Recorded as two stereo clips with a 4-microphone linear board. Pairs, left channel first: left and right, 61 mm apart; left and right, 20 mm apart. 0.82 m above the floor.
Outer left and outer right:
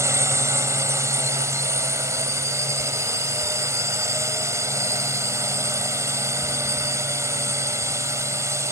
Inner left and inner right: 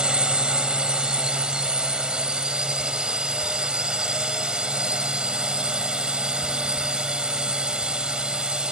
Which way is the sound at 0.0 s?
55° right (ahead or behind).